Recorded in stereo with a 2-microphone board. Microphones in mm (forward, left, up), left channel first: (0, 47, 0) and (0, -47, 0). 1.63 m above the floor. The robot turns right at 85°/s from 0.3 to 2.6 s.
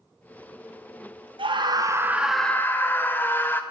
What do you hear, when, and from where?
1.4 s a scream: 80° right, 0.5 m; by 3.6 s 25° left, 0.5 m